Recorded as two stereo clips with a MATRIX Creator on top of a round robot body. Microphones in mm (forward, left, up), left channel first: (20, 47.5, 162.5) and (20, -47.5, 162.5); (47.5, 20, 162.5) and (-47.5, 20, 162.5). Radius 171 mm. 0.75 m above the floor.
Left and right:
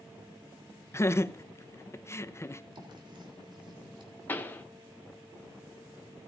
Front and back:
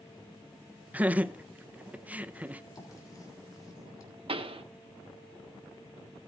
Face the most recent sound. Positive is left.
turn(degrees=160)